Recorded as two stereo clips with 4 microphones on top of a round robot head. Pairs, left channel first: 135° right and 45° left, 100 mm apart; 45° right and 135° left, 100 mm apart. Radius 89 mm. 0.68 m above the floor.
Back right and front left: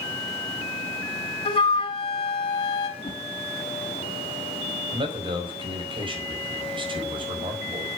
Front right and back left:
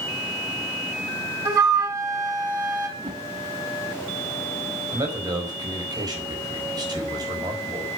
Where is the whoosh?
175° right, 3 m.